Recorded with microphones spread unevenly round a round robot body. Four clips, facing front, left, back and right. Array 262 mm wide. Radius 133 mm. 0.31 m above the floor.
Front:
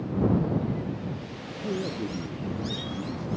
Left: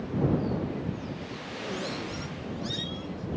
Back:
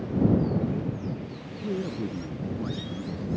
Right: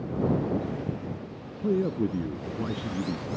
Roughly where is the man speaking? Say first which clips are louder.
Right 10 dB, even; right.